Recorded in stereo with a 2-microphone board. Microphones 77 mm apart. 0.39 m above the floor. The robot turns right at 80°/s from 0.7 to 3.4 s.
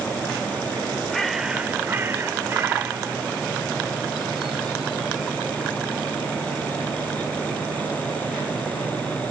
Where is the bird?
5° left (ahead or behind), 1.4 m; by 6.2 s 5° right (ahead or behind), 1.4 m.